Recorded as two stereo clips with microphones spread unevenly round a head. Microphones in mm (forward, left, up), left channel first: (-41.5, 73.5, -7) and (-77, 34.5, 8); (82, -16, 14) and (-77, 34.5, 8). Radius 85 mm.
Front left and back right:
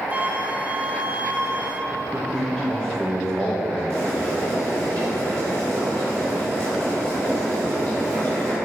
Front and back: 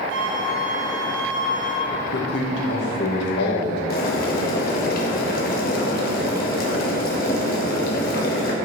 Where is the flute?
165° left, 1.0 m.